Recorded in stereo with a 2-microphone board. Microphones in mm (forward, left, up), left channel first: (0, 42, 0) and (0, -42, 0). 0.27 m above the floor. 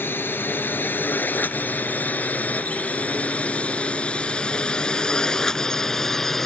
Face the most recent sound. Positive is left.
turn(degrees=5)  # may be behind; listen again after turning